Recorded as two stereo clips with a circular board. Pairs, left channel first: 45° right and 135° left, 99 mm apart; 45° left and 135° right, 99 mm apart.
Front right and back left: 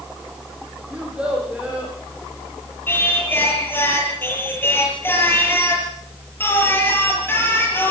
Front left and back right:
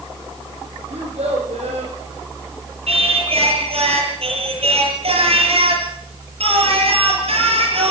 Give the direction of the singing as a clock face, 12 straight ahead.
4 o'clock.